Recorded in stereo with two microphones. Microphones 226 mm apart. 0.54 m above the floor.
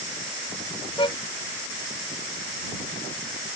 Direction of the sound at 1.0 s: 20° left (ahead or behind).